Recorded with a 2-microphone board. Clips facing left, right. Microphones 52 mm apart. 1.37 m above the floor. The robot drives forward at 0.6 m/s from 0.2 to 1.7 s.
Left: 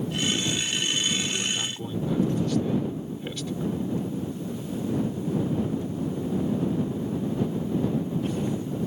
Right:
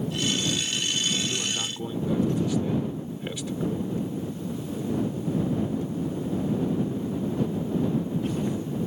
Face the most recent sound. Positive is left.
turn(degrees=-10)  # may be behind; listen again after turning